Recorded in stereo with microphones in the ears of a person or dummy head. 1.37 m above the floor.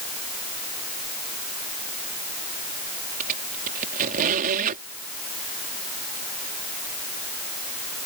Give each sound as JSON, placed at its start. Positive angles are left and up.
{"t": 3.2, "sound": "a squeak", "side_deg": -40}